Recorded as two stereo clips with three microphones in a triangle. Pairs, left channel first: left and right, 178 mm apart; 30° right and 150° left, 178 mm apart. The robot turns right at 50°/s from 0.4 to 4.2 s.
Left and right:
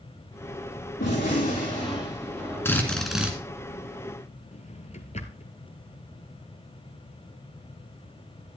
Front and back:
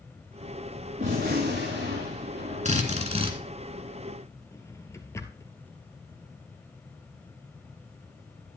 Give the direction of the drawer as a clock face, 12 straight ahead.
11 o'clock.